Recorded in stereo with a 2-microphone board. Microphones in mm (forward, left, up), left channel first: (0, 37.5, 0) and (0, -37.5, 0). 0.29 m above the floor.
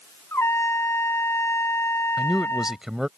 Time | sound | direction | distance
0.3 | a trumpet | 40° left (ahead or behind) | ?
2.2 | a man speaking | 10° right (ahead or behind) | ?